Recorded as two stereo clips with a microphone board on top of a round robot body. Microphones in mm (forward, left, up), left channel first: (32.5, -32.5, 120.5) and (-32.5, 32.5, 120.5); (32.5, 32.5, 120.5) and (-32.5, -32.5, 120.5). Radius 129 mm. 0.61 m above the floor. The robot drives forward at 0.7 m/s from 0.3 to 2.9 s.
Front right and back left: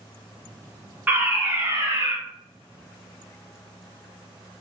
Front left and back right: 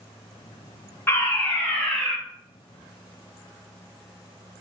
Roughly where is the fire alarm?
Left.